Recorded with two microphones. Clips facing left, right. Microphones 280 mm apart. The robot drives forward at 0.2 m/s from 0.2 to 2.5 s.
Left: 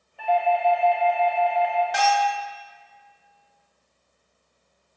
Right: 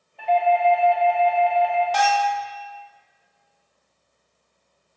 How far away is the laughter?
I don't hear laughter.